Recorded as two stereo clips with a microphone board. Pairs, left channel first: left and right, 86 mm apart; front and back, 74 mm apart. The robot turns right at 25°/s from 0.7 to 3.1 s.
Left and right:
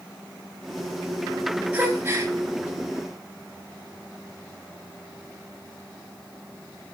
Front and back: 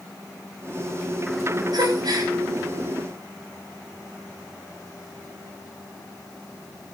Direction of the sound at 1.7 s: 160° right.